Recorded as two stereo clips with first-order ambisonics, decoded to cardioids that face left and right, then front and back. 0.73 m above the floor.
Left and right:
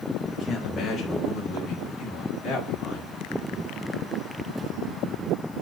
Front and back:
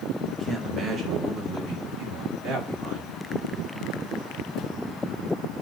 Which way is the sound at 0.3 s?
115° left.